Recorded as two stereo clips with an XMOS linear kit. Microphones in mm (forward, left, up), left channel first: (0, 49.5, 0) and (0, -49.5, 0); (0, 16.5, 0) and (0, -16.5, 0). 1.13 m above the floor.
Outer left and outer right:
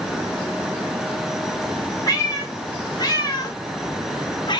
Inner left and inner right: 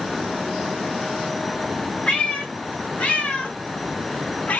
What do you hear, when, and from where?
2.1 s a cat meowing: 40° left (ahead or behind), 2.5 m; by 4.6 s 50° left (ahead or behind), 0.9 m